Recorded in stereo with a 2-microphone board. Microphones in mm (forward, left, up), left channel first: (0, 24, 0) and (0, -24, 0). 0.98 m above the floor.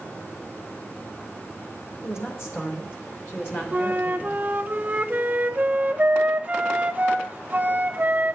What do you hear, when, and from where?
2.0 s a woman speaking: 60° left (ahead or behind), 4 m; by 4.4 s 40° left (ahead or behind), 2.5 m
3.7 s a flute: 30° right (ahead or behind), 0.6 m